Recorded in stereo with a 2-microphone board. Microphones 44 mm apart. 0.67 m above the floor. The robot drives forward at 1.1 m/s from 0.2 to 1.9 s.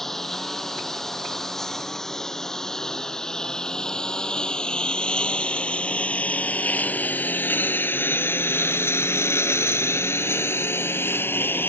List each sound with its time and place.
0.0 s a lawn mower: 5° left (ahead or behind); by 11.7 s 55° left (ahead or behind)